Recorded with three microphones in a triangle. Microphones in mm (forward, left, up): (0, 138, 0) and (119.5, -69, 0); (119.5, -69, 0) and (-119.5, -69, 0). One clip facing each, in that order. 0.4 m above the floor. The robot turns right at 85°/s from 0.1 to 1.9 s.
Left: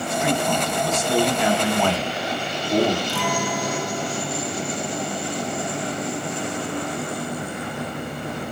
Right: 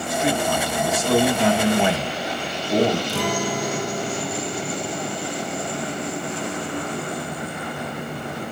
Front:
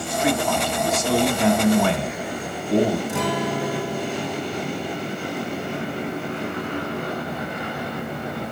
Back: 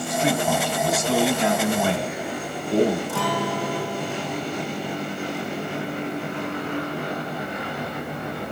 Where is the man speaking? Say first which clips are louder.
Right 1 dB, front 1 dB; 135° right, 2 m; by 3.0 s 20° left, 2 m.